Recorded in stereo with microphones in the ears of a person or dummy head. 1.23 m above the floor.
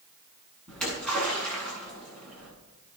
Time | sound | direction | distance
0.7 | a splash | 5° left (ahead or behind) | 9 m